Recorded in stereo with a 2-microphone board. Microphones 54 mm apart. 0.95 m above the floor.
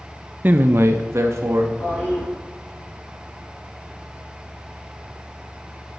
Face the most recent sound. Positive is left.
turn(degrees=40)  # may be behind; listen again after turning